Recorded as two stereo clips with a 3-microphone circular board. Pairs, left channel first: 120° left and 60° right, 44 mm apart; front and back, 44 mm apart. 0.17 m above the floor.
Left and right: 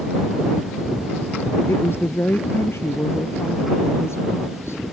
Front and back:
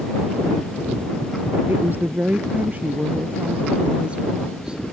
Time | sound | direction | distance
1.7 | a woman speaking | 140° left | ?